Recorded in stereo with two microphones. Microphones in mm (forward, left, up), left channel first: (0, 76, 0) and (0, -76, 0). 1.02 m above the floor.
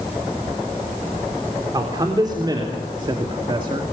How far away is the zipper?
No zipper in this recording.